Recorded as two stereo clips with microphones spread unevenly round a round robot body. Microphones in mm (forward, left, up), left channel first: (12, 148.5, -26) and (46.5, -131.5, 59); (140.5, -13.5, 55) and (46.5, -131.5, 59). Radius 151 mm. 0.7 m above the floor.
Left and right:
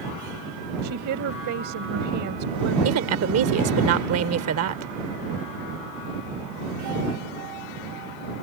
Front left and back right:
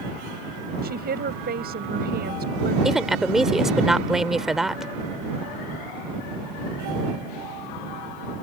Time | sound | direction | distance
0.8 | a woman speaking | 125° right | ?
2.9 | a woman speaking | 40° right | ?